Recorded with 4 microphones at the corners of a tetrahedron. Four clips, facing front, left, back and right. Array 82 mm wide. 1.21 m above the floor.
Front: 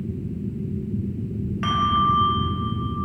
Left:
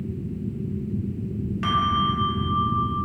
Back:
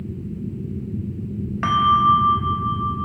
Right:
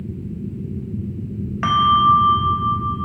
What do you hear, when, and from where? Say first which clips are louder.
1.6 s a bell: right 9 dB, back 5 dB; 125° right, 1.1 m